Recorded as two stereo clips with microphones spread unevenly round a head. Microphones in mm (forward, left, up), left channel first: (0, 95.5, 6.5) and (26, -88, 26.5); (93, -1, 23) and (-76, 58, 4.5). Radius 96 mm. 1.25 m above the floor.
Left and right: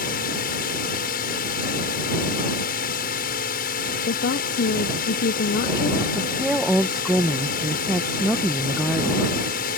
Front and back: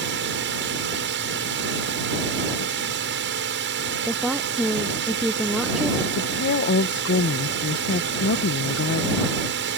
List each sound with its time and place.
0.0 s a drone: 145° left
4.1 s a woman speaking: 75° left
6.2 s a woman speaking: 5° left